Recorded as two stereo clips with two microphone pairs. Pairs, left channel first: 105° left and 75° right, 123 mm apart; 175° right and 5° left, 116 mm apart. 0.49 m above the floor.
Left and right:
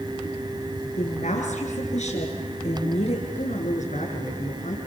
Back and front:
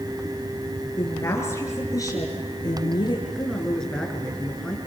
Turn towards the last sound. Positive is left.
turn(degrees=100)